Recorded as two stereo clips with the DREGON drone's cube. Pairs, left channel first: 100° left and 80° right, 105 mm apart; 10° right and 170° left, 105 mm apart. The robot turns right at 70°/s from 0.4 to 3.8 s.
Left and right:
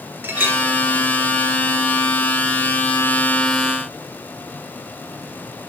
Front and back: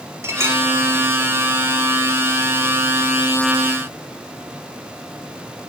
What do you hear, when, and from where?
0.2 s a clink: 135° right, 1.1 m; by 0.6 s 125° right, 1.1 m